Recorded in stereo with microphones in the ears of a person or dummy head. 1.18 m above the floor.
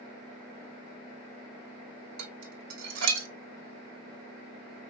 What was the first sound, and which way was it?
Dishes clattering, 75° right (ahead or behind).